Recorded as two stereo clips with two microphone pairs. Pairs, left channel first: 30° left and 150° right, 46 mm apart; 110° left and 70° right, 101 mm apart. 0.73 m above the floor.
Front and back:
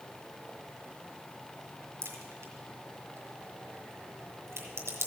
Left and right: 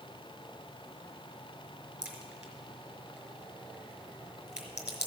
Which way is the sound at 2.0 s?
150° right.